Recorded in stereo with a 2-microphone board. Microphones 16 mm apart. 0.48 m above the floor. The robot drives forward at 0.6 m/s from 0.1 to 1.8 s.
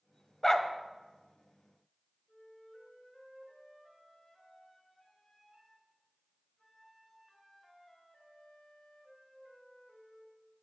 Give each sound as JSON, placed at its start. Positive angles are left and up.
{"t": 0.4, "sound": "a dog barking", "side_deg": 15, "distance_m": 0.8}
{"t": 2.3, "sound": "a flute", "side_deg": 10, "distance_m": 3.0}